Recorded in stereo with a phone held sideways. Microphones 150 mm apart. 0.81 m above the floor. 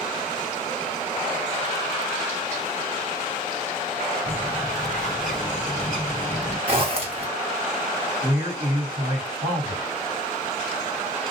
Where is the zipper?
40° right (ahead or behind), 1.0 m.